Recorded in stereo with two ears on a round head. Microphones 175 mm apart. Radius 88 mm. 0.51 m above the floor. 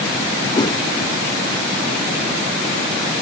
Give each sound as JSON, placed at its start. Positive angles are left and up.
{"t": 0.6, "sound": "a whoosh", "side_deg": 25}